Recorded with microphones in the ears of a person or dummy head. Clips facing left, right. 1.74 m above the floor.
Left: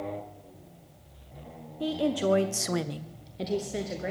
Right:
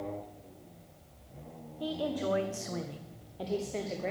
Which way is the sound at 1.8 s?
30° left (ahead or behind).